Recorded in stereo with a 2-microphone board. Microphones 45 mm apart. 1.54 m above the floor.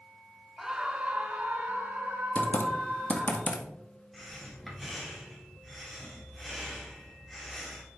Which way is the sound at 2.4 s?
30° left (ahead or behind).